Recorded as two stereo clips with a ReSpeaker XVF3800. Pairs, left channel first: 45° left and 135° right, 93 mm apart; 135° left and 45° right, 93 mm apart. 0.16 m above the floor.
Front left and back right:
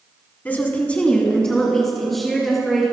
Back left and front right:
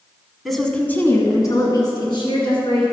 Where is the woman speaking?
45° left, 1.4 m; by 2.8 s 135° left, 3 m.